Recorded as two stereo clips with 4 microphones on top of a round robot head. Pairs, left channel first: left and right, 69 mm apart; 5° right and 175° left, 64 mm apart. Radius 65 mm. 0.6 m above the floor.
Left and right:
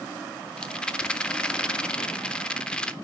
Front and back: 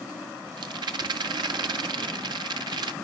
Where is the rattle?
170° left, 0.7 m.